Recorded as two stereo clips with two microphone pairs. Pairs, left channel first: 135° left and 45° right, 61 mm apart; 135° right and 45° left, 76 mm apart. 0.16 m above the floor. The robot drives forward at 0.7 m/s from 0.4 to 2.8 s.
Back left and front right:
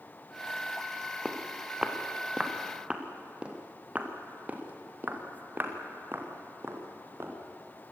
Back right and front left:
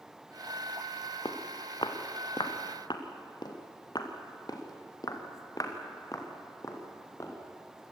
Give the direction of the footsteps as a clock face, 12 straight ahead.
4 o'clock.